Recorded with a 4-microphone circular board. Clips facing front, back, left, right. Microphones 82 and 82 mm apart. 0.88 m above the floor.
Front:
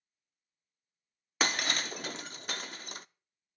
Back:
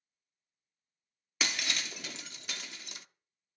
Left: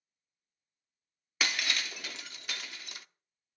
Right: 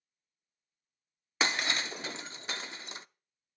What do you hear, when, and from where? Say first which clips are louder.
1.4 s breaking glass: front 5 dB, right 3 dB; 35° right, 0.5 m